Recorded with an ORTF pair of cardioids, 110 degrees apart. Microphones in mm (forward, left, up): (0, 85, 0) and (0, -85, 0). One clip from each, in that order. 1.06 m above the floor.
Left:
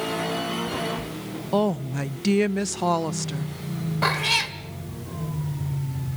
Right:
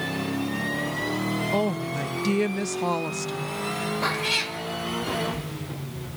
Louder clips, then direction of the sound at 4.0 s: Left 4 dB; 25° left.